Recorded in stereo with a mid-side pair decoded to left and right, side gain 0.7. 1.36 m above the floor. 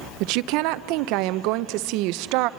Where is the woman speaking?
65° right, 0.7 m.